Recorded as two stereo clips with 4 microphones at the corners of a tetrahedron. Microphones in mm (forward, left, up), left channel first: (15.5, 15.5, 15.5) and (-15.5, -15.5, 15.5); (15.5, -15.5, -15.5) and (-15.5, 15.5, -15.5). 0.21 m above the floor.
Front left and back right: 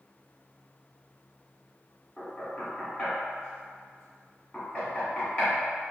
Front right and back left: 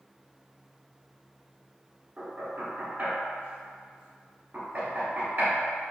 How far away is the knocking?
About 1.9 m.